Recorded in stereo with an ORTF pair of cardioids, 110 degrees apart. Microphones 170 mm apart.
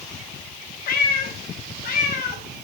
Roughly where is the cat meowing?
Ahead left.